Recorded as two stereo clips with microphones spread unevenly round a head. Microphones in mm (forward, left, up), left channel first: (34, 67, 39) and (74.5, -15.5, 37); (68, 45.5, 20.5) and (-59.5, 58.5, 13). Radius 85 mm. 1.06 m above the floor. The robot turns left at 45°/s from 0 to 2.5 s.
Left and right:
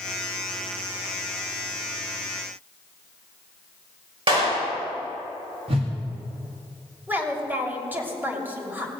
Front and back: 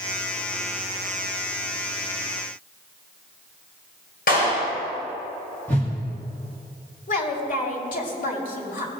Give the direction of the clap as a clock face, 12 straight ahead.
1 o'clock.